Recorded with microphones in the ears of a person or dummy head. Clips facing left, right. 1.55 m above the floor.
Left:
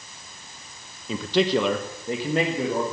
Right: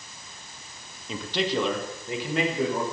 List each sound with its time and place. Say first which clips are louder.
1.1 s a man speaking: left 6 dB; 65° left (ahead or behind), 1.0 m; by 2.8 s 25° left (ahead or behind), 2 m